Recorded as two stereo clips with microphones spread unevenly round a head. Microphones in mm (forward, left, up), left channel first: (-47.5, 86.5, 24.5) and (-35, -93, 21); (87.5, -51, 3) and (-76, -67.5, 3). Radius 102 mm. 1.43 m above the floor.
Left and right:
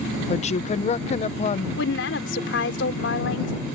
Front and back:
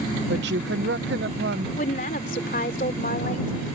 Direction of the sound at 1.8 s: 60° left.